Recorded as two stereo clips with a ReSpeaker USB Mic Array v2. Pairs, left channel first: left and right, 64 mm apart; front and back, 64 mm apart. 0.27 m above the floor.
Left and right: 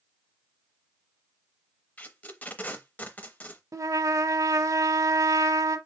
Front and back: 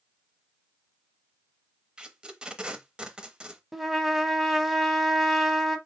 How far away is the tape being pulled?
About 0.6 m.